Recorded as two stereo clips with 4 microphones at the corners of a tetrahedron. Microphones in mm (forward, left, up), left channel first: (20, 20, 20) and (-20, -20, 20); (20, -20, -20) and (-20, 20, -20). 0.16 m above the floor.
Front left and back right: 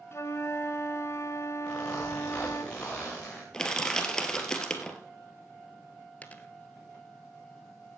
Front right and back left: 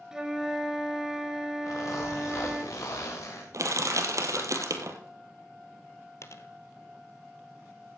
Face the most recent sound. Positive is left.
turn(degrees=-20)